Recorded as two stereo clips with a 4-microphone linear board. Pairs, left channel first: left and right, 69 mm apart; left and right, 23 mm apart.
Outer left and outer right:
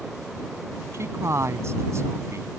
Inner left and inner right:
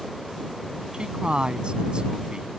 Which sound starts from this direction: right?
A man speaking, at 0.9 s.